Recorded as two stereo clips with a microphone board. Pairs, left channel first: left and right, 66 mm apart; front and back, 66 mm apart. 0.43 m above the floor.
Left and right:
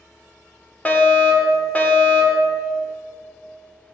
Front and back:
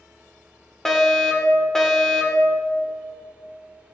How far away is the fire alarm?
About 1.8 m.